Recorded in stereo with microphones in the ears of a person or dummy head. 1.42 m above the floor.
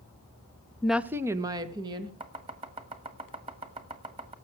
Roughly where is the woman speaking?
Centre.